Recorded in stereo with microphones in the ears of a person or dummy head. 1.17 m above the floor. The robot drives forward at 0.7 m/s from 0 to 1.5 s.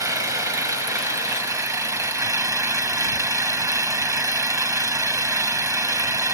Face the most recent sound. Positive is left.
turn(degrees=-15)  # may be behind; listen again after turning